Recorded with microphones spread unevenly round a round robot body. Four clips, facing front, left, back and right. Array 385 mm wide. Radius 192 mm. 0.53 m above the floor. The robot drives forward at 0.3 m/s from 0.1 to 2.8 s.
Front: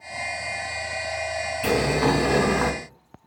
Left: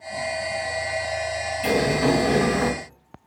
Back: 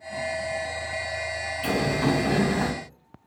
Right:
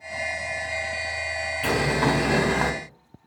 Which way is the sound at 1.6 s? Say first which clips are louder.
Left 2 dB, front 3 dB; 55° right.